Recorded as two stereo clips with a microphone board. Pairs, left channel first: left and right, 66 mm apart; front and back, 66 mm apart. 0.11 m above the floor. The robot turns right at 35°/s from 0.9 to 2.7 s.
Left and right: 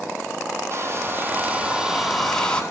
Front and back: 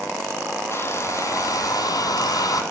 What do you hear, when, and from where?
0.7 s a hair dryer: 45° right, 0.7 m; by 2.6 s 15° left, 0.7 m